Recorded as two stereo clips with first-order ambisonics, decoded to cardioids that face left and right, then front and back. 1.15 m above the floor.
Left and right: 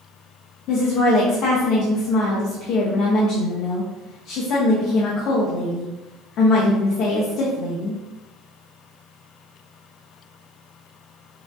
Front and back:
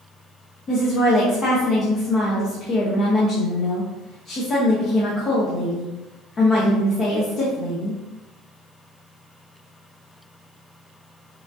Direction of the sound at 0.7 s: 55° left.